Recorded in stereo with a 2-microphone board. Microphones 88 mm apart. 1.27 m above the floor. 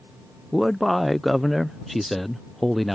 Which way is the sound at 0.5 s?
Centre (ahead or behind).